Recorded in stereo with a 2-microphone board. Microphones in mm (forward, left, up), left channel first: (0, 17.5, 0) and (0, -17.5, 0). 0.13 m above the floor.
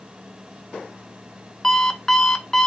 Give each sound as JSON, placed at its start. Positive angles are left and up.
{"t": 1.6, "sound": "an alarm clock", "side_deg": 10, "distance_m": 0.7}